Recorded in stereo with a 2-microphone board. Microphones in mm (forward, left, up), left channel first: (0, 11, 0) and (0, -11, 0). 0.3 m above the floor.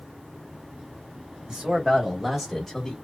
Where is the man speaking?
35° right (ahead or behind), 1.4 m; by 3.0 s 20° left (ahead or behind), 1.0 m.